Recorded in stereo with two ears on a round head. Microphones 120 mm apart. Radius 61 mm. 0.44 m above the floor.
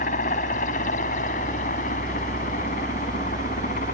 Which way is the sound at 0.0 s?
65° left (ahead or behind).